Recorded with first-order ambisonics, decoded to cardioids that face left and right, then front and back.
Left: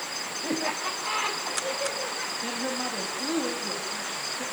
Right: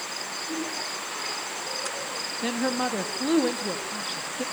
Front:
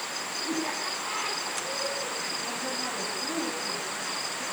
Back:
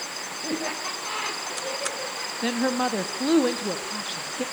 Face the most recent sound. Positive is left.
turn(degrees=-155)